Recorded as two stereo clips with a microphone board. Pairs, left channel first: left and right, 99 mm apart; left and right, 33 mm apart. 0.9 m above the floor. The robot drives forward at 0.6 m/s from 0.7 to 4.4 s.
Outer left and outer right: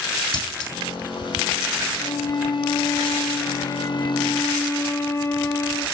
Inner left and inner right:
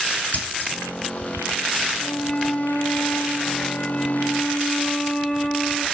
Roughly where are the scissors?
Left.